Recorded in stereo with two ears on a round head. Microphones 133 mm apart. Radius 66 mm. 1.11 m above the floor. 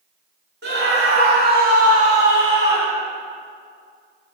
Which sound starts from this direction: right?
A scream, at 0.6 s.